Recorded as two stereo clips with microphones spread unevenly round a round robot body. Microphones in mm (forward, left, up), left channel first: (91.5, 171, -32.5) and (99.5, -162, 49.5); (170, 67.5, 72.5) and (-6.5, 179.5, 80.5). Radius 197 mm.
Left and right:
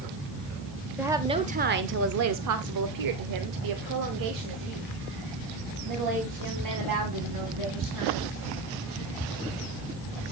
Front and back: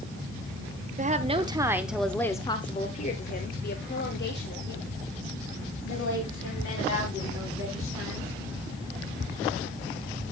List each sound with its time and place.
1.0 s a woman speaking: 170° left, 1.1 m; by 8.3 s 55° right, 4.5 m